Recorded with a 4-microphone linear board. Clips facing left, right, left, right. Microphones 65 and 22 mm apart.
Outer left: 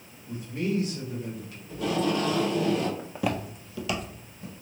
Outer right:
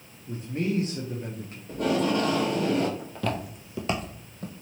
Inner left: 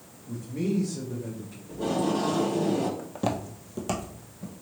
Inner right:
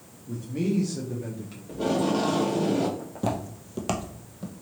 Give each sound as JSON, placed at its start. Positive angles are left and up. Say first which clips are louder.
{"t": 0.3, "sound": "a man speaking", "louder": "outer right 1 dB, inner right 1 dB", "side_deg": -30, "distance_m": 1.0}
{"t": 1.7, "sound": "tape being pulled", "louder": "outer right 2 dB, inner right 2 dB", "side_deg": -50, "distance_m": 1.3}
{"t": 3.0, "sound": "footsteps", "louder": "outer left 1 dB, even", "side_deg": 25, "distance_m": 0.8}